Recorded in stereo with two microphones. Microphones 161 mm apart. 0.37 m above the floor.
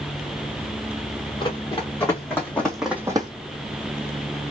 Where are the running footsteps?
30° left (ahead or behind), 1.9 m; by 3.3 s 30° right (ahead or behind), 0.7 m.